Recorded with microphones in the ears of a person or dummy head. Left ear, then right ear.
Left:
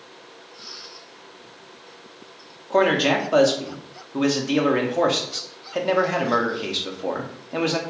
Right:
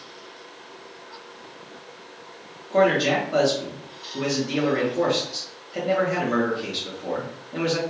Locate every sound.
2.7 s a man speaking: 40° left (ahead or behind), 0.6 m